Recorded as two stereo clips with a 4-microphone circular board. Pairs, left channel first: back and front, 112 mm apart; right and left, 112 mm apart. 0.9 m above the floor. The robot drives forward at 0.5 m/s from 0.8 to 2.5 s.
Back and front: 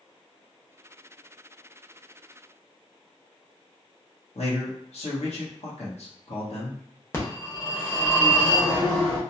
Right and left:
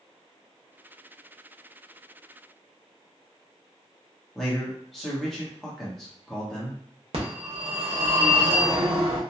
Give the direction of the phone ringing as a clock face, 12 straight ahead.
8 o'clock.